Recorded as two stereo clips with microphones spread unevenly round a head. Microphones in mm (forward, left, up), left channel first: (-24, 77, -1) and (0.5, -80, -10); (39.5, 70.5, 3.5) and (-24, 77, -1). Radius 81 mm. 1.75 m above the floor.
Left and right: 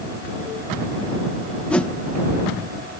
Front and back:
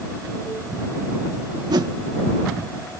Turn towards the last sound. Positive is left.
turn(degrees=180)